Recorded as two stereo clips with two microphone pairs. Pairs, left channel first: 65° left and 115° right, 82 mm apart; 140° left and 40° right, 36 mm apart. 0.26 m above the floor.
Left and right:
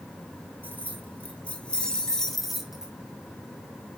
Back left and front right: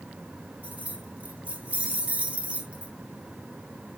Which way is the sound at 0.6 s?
Straight ahead.